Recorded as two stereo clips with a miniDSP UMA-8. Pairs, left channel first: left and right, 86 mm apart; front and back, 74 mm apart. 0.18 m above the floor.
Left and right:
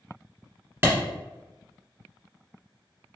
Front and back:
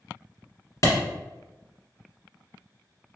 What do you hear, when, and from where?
0.8 s a clap: 30° right, 1.5 m